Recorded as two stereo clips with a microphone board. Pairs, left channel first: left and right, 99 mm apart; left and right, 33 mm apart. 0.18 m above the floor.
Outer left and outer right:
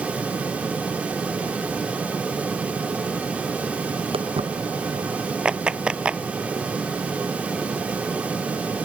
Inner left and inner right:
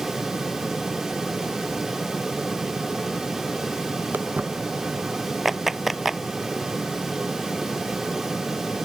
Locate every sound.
4.1 s footsteps: 75° right (ahead or behind)
5.5 s a clap: 10° right (ahead or behind)